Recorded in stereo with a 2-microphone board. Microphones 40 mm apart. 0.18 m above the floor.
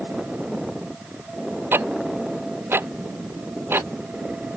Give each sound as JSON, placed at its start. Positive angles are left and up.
{"t": 1.7, "sound": "ticking", "side_deg": -60}